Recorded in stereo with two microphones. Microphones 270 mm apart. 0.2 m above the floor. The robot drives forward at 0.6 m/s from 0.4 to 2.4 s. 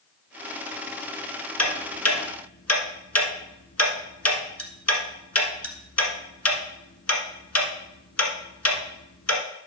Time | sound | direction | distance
1.6 | ticking | 65° left (ahead or behind) | 1.4 m